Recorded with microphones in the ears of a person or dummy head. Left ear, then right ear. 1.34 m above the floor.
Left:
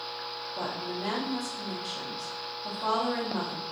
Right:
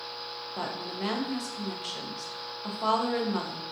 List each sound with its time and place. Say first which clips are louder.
0.6 s a woman speaking: even; 60° right (ahead or behind), 0.7 m